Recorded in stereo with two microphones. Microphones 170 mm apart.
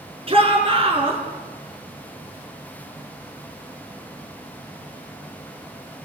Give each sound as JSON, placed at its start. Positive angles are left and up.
{"t": 0.3, "sound": "a shout", "side_deg": -35, "distance_m": 4.0}